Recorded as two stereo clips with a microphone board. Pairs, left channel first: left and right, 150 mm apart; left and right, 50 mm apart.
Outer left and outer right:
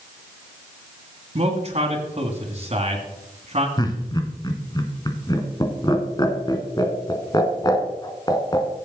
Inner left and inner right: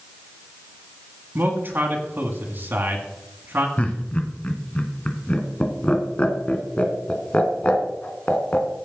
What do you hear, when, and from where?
1.4 s a man speaking: 45° right (ahead or behind), 2 m
3.8 s laughter: 25° left (ahead or behind), 1.8 m